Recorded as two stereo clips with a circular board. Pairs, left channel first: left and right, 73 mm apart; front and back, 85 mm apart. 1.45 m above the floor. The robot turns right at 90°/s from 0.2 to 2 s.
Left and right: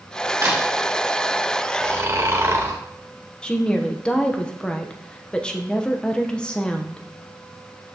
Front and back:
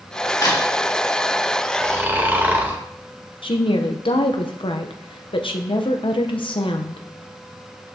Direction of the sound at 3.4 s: 10° left.